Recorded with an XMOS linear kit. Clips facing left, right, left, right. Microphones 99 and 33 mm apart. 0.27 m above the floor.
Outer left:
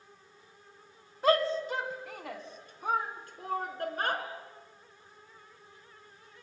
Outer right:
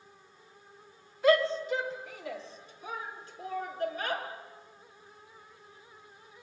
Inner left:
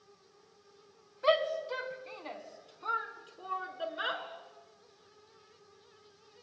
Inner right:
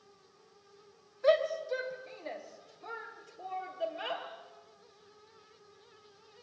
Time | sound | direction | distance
1.2 | a shout | 50° left (ahead or behind) | 2.5 m